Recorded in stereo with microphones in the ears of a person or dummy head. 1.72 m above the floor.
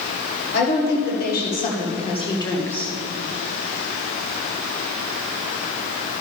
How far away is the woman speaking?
About 1.9 m.